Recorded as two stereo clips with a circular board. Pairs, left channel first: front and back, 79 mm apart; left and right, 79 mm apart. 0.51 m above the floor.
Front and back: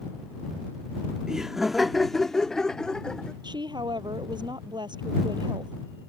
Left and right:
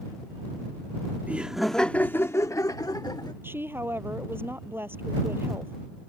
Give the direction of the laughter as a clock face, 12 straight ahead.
4 o'clock.